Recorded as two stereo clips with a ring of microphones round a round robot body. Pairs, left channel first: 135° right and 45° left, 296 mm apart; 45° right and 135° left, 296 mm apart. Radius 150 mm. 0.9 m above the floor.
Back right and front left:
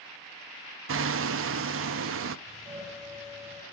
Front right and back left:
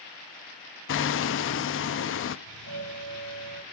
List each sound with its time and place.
0.9 s hammering: straight ahead, 0.8 m
2.5 s a doorbell: 115° left, 4.5 m